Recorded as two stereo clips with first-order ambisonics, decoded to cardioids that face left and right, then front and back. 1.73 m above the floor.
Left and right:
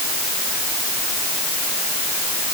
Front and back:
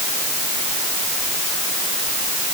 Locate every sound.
Only background noise.